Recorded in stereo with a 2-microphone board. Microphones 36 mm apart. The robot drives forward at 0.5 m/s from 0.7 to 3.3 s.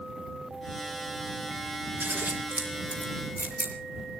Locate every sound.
2.0 s scissors: 70° right (ahead or behind), 4 m; by 3.7 s 60° right (ahead or behind), 4.5 m